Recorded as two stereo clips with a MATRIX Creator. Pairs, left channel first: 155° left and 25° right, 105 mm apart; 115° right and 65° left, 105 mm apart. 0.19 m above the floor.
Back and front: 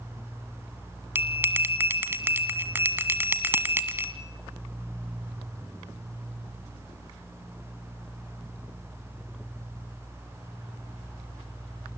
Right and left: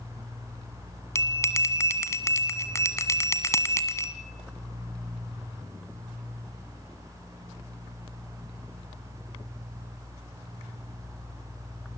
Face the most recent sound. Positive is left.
turn(degrees=-75)